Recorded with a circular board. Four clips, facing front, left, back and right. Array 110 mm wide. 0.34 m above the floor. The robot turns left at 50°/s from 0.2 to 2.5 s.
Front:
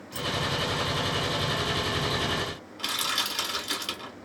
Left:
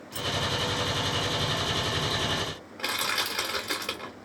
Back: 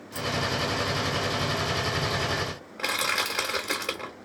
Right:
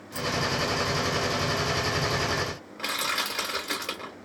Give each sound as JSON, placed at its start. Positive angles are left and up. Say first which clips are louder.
{"t": 0.1, "sound": "keys jangling", "louder": "right 3 dB, back 1 dB", "azimuth_deg": 45, "distance_m": 0.7}
{"t": 2.8, "sound": "crushing", "louder": "even, back 4 dB", "azimuth_deg": 180, "distance_m": 1.8}